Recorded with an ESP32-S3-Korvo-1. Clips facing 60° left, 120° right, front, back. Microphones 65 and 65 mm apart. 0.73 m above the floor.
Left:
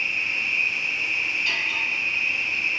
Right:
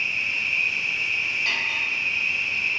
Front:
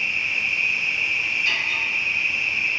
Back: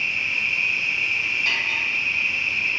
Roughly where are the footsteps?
No footsteps in this recording.